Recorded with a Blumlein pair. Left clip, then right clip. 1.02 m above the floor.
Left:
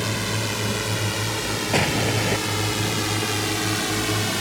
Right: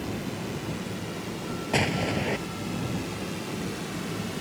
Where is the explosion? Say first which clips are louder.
Left 4 dB; 10° left.